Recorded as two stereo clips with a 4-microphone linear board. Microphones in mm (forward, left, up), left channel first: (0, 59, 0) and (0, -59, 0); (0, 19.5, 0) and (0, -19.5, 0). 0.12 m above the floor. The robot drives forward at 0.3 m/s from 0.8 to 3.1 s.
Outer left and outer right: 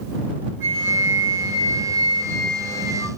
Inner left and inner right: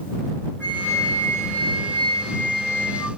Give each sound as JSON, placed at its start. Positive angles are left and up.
{"t": 0.6, "sound": "a flute", "side_deg": 80, "distance_m": 1.9}